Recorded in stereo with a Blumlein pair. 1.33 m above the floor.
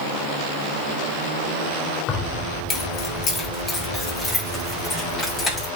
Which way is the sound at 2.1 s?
30° left.